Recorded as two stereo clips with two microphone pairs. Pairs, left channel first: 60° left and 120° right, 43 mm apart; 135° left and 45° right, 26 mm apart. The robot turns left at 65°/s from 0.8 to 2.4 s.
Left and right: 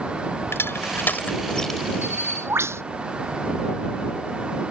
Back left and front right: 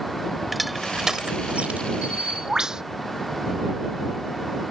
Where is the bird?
85° right; by 2.8 s 110° right.